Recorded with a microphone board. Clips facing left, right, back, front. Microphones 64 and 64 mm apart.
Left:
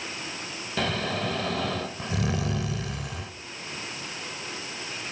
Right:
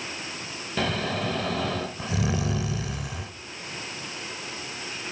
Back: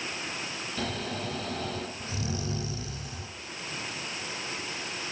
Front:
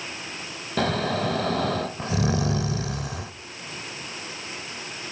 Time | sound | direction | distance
0.8 | snoring | straight ahead | 0.7 m